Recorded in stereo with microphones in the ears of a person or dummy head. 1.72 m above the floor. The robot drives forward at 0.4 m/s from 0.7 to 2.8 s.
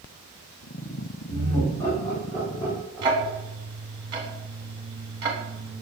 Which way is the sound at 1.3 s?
20° left (ahead or behind).